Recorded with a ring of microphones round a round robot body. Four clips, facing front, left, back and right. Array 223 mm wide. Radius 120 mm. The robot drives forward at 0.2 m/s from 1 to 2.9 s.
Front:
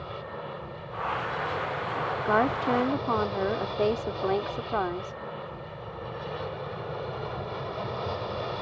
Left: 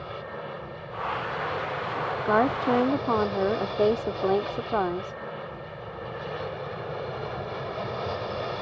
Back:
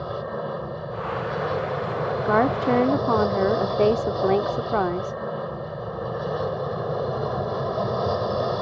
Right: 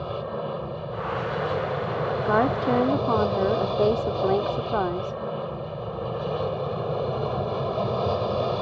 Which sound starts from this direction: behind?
A woman speaking, at 2.2 s.